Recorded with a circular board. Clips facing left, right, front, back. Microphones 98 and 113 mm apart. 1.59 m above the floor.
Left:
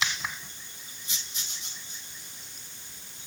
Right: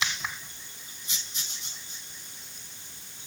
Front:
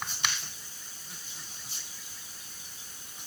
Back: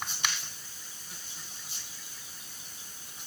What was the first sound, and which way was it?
Only background noise.